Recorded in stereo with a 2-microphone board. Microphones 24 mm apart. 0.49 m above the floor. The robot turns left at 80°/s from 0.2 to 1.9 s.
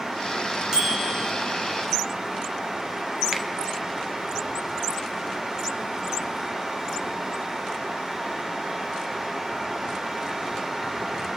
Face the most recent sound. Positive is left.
turn(degrees=-40)  # may be behind; listen again after turning